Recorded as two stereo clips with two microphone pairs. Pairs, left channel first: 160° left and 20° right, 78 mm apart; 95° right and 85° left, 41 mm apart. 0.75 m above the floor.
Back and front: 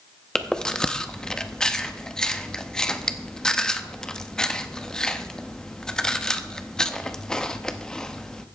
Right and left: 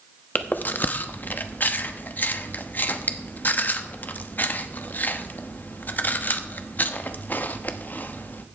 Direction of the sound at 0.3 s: 120° right.